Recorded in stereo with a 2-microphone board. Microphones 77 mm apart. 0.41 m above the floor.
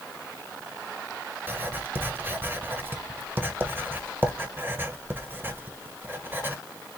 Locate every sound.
1.5 s writing: 25° right (ahead or behind), 0.7 m